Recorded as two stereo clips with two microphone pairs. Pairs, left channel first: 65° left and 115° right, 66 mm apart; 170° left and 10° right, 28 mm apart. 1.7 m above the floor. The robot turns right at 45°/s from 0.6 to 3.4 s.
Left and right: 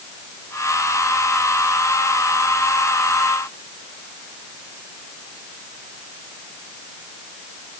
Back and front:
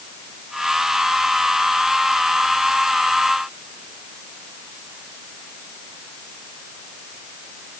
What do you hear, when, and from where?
Only background noise.